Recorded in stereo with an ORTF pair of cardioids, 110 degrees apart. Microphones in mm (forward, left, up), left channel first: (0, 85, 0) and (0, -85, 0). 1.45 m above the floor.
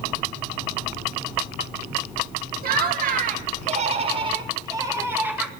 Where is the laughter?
55° right, 2 m; by 5.5 s 5° right, 2.0 m.